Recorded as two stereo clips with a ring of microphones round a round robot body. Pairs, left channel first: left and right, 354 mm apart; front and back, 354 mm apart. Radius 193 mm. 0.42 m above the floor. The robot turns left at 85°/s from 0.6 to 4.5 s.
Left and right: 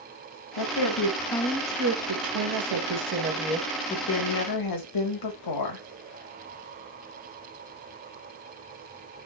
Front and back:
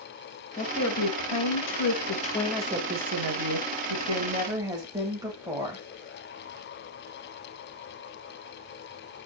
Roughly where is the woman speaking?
Left.